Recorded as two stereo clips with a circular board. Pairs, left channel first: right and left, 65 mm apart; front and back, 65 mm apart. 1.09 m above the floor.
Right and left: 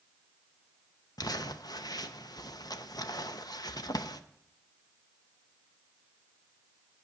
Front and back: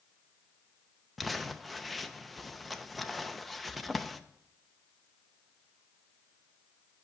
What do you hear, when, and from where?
1.2 s crumpling: 90° right, 0.7 m